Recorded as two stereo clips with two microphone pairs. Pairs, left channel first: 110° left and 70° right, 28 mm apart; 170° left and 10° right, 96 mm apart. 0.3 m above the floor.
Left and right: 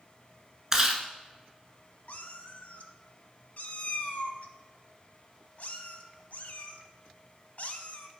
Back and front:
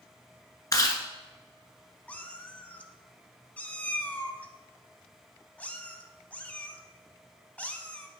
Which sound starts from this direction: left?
A cat meowing, at 2.1 s.